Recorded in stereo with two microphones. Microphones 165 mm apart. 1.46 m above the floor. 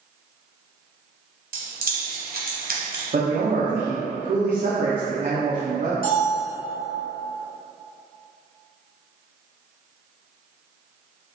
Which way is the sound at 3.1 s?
55° right (ahead or behind).